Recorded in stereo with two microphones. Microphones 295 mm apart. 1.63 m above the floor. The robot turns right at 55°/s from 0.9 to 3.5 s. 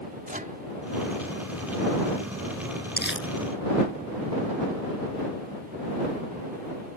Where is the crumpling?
30° left (ahead or behind); by 3.3 s 50° left (ahead or behind).